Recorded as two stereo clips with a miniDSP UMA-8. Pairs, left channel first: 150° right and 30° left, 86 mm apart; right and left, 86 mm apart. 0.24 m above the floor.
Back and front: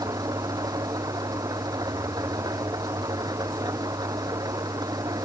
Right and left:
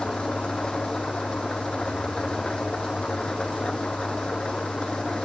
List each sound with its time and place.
0.0 s an engine running: 10° right